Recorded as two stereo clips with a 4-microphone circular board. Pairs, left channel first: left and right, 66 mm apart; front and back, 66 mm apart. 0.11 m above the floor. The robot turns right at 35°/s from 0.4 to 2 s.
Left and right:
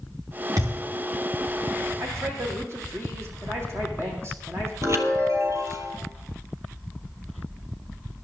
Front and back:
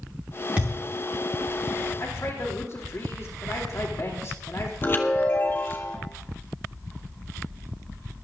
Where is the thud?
115° right, 3 m; by 0.8 s 105° right, 3 m.